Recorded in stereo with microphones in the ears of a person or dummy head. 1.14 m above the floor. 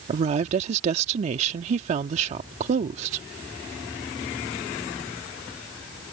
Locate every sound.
0.1 s a woman speaking: 40° right (ahead or behind)